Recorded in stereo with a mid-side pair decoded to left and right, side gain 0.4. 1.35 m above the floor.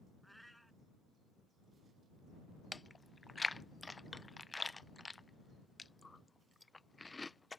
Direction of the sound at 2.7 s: 20° left.